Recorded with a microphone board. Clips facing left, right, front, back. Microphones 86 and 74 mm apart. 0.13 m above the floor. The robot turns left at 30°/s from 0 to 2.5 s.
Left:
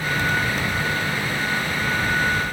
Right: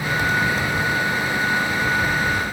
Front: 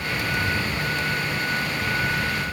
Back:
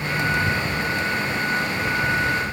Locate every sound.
Only background noise.